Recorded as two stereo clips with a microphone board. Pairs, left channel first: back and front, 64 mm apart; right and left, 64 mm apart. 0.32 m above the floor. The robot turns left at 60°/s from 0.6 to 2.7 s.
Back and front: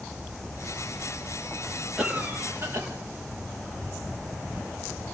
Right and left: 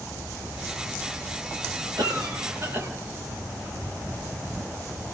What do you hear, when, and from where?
2.0 s a cough: 80° left, 8 m; by 2.9 s 35° left, 8 m